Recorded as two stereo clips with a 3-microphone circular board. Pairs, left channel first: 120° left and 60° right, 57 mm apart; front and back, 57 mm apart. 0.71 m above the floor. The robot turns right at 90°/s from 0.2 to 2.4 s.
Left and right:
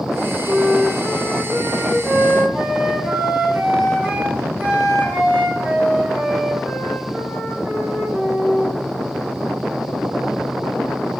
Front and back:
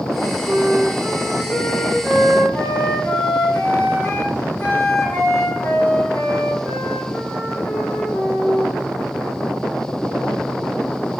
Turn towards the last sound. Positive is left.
turn(degrees=5)